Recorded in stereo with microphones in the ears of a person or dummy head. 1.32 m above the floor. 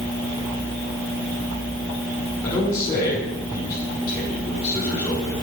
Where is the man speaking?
20° left (ahead or behind), 4.5 m.